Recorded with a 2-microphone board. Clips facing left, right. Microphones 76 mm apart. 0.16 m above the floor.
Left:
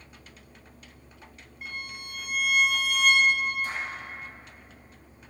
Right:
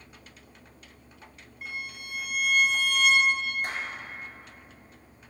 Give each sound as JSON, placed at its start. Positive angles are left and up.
{"t": 1.6, "sound": "a violin", "side_deg": 0, "distance_m": 1.9}
{"t": 3.6, "sound": "a clap", "side_deg": -65, "distance_m": 2.5}